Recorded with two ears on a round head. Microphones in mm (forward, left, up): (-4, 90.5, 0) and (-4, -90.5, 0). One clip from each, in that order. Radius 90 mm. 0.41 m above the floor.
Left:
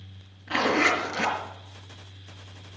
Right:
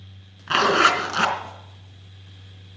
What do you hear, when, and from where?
0.5 s a zipper: 60° right (ahead or behind), 3.5 m